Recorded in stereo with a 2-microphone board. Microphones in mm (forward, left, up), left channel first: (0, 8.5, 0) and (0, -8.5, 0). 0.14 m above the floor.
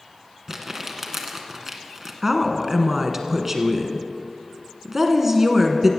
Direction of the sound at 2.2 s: 20° right (ahead or behind).